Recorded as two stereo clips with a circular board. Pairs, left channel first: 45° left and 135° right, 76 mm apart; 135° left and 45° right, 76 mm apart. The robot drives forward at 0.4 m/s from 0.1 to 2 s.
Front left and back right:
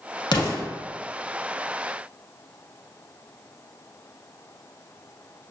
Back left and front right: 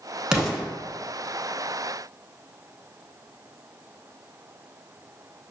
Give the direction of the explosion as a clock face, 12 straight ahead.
11 o'clock.